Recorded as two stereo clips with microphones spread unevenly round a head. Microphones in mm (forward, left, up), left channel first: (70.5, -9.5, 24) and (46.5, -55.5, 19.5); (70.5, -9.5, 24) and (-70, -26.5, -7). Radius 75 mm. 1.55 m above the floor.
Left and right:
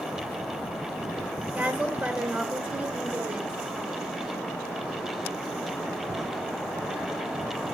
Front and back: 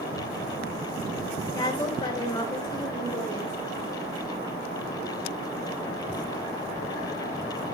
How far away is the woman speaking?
About 4 m.